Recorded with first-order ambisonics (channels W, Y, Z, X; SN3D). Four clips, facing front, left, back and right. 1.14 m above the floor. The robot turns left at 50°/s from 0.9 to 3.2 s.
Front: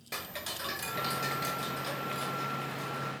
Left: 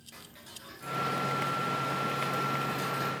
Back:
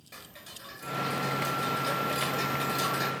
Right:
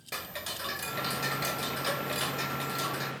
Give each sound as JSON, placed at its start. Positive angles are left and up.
{"t": 0.1, "sound": "ticking", "azimuth_deg": -50, "distance_m": 0.6}